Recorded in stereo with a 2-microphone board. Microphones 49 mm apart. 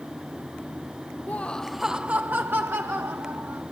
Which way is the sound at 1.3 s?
35° left (ahead or behind).